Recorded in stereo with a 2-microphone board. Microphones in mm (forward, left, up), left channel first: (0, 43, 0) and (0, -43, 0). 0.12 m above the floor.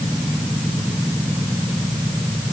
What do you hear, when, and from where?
Only background noise.